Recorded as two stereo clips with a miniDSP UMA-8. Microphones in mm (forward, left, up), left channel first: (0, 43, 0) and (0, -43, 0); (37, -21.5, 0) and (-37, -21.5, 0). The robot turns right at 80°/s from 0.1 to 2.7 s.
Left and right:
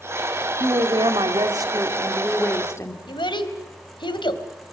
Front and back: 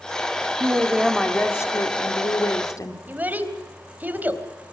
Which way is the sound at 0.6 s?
130° right.